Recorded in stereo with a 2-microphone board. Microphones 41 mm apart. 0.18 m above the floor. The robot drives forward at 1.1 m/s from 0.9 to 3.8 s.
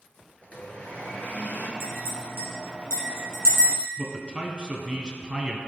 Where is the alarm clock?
I don't hear an alarm clock.